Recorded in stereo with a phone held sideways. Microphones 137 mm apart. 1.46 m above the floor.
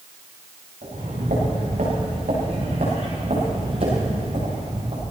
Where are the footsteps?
75° right (ahead or behind), 8 m; by 5.0 s 50° right (ahead or behind), 8 m.